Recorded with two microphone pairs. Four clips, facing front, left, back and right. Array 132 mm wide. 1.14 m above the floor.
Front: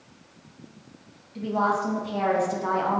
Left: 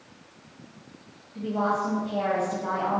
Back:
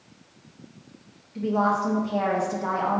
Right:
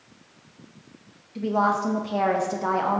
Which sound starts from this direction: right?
A woman speaking, at 1.4 s.